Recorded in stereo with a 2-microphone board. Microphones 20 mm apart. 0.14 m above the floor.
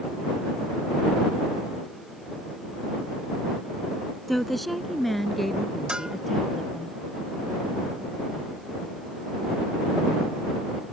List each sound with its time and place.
4.3 s a woman speaking: 5° left (ahead or behind); by 6.9 s 15° left (ahead or behind)
5.9 s a bell: 45° right (ahead or behind)